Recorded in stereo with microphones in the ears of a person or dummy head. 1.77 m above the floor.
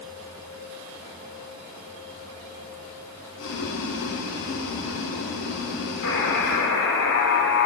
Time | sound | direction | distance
3.4 | boiling | 75° left (ahead or behind) | 5.5 m
6.0 | a buzzer | 65° left (ahead or behind) | 5.5 m